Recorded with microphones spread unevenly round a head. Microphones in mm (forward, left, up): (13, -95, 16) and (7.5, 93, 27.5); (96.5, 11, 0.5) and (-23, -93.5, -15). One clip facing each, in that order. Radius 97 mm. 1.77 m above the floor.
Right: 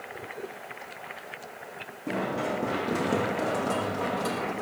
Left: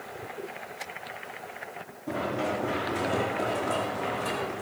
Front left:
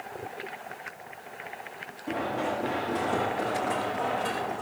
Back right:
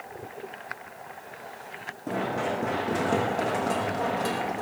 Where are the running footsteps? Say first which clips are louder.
Even, back right 1 dB; 105° right, 7 m; by 4.6 s 95° right, 4.5 m.